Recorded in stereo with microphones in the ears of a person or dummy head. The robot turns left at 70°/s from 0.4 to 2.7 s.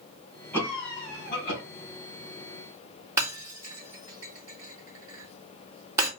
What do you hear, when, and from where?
0.5 s a cough: 170° left, 2.5 m; by 1.6 s 95° left, 2.5 m
3.2 s breaking glass: 15° right (ahead or behind), 2 m